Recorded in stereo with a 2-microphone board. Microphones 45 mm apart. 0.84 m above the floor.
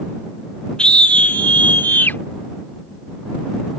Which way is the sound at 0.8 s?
20° left (ahead or behind).